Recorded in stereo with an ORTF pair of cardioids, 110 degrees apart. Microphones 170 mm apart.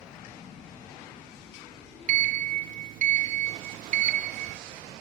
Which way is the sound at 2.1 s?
50° right.